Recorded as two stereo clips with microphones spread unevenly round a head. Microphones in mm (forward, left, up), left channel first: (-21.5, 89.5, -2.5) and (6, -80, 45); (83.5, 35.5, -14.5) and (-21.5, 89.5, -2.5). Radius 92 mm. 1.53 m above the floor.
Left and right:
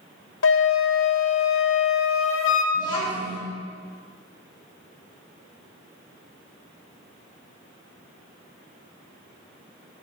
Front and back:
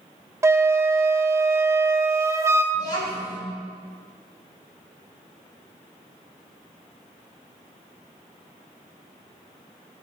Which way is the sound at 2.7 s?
30° left.